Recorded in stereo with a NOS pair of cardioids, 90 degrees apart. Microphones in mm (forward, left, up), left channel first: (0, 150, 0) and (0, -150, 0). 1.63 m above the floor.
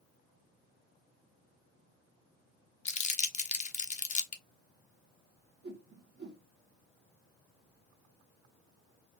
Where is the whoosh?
35° right, 2.5 m.